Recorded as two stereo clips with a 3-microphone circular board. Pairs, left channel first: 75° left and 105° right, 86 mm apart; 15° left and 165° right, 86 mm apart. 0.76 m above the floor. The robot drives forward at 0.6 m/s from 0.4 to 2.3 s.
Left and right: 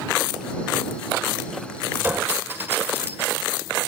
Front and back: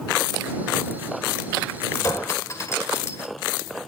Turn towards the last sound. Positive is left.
turn(degrees=-40)